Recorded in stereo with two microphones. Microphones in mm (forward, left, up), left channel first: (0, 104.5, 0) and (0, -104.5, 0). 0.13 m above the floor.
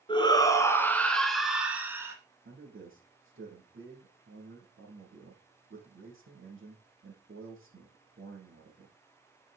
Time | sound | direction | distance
0.1 | a shout | 20° left (ahead or behind) | 1.6 m
2.5 | a man speaking | 65° right (ahead or behind) | 5 m